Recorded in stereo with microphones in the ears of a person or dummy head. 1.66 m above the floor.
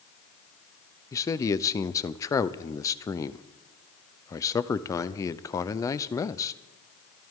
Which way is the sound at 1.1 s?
20° left (ahead or behind).